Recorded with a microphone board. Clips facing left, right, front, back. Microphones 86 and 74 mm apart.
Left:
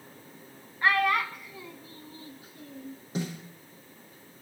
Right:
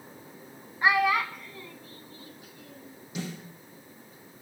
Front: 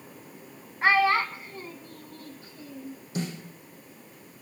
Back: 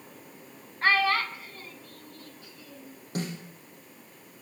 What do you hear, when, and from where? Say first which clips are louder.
0.8 s a child speaking: right 1 dB, front 3 dB; 50° right, 0.7 m; by 3.0 s 50° left, 1.2 m
3.1 s a snare drum: left 3 dB, front 1 dB; 145° left, 7.5 m